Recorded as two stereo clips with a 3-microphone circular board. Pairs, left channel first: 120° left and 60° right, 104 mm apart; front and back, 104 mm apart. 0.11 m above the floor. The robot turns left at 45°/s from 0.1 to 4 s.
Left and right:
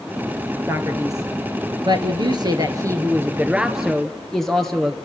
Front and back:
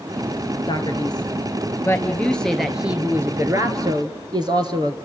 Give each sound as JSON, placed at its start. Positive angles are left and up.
{"t": 0.7, "sound": "a man speaking", "azimuth_deg": -5, "distance_m": 2.0}